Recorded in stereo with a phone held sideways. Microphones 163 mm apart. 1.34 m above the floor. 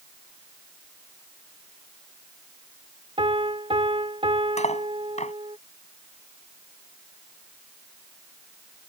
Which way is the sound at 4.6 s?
45° left (ahead or behind).